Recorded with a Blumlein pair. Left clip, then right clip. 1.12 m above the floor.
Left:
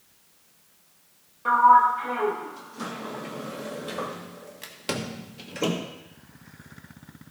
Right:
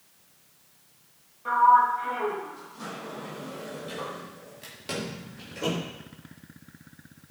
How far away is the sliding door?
About 1.3 m.